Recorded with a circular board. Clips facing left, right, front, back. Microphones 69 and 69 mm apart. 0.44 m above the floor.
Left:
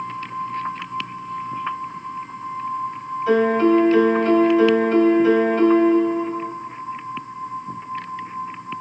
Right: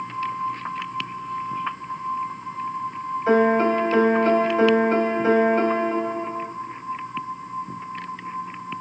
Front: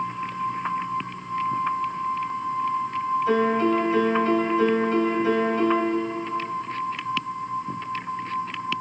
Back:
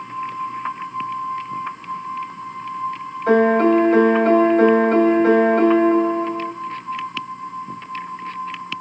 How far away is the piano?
About 2.5 m.